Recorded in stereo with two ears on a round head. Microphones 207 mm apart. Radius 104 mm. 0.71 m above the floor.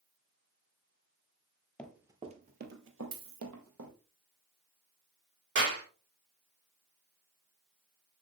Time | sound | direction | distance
1.8 | running footsteps | 5° left (ahead or behind) | 0.9 m
3.1 | a dropped coin | 55° right (ahead or behind) | 1.4 m
5.5 | a clap | 50° right (ahead or behind) | 2 m